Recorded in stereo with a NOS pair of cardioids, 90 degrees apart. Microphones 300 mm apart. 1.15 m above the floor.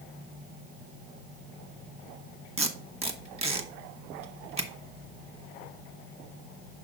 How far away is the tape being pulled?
About 1.4 m.